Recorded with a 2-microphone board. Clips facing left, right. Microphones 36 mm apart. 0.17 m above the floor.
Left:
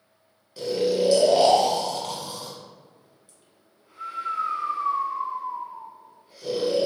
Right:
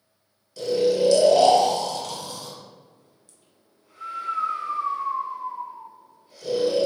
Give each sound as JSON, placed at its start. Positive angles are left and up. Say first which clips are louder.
{"t": 0.6, "sound": "snoring", "louder": "right 2 dB", "side_deg": 20, "distance_m": 1.2}